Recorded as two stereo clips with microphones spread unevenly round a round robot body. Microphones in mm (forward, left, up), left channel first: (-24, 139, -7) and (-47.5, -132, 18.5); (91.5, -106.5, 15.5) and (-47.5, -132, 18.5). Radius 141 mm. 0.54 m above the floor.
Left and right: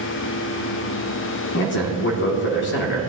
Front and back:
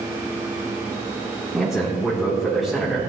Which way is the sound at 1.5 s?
100° left.